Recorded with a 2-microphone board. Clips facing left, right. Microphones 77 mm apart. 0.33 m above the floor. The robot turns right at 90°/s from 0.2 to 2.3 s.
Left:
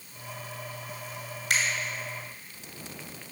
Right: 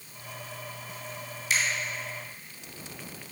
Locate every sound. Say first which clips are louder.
1.5 s a finger snap: left 1 dB; 65° left (ahead or behind), 2 m; by 1.6 s 60° left (ahead or behind), 2 m